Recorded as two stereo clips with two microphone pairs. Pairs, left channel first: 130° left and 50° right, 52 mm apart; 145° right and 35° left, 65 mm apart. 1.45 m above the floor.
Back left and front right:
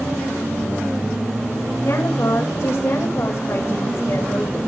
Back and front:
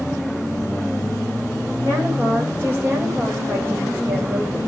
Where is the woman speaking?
90° left, 8.5 m.